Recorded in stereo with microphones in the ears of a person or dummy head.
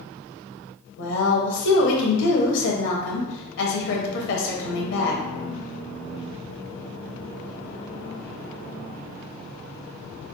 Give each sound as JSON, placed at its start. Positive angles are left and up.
{"t": 1.0, "sound": "a woman speaking", "side_deg": 70, "distance_m": 1.2}